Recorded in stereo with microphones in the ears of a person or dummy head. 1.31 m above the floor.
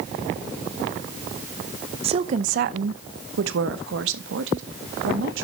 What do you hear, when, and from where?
2.0 s a woman speaking: 30° right (ahead or behind), 0.7 m; by 5.5 s 85° right, 2 m